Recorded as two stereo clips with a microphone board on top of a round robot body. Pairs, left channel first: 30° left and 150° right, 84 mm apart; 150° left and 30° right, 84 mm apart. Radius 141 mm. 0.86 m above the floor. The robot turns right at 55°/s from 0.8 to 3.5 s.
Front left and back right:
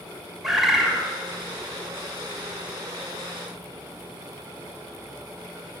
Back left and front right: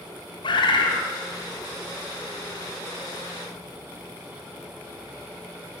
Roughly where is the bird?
Behind left.